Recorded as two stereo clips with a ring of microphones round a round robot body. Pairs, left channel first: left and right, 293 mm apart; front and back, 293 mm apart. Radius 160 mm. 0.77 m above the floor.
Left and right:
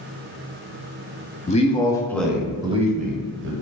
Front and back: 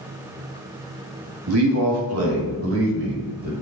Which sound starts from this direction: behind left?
A man speaking, at 1.5 s.